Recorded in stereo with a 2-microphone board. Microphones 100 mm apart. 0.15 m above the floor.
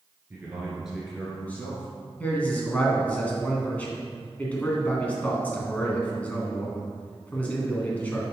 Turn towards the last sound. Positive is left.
turn(degrees=15)  # may be behind; listen again after turning